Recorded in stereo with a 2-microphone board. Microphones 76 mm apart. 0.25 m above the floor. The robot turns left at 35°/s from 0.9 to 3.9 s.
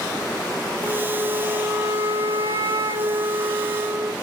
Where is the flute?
20° right, 0.7 m; by 4.1 s 125° right, 0.7 m.